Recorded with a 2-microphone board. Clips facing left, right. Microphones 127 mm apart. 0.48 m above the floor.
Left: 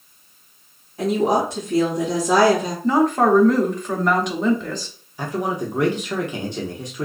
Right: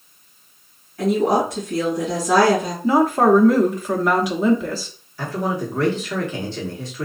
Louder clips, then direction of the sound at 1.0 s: Right 1 dB; 25° left (ahead or behind).